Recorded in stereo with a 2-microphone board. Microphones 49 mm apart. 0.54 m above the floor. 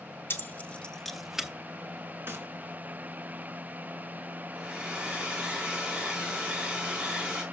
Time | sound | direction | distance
0.3 | keys jangling | 45° left (ahead or behind) | 0.8 m
2.3 | a gunshot | 50° right (ahead or behind) | 1.9 m
4.5 | a hair dryer | 25° right (ahead or behind) | 3.5 m